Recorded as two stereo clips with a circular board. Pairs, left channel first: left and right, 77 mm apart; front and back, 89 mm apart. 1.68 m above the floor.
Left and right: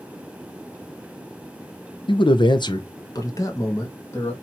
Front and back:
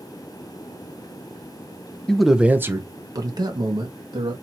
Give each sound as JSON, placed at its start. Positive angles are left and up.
{"t": 2.1, "sound": "a man speaking", "azimuth_deg": 80, "distance_m": 0.6}